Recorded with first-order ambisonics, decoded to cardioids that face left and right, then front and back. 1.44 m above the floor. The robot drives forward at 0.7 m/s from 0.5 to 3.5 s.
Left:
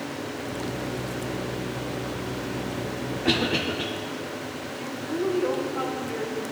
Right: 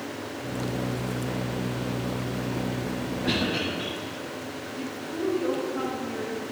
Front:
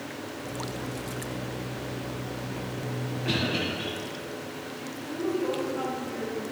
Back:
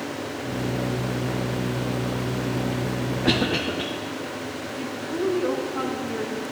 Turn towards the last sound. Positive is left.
turn(degrees=-170)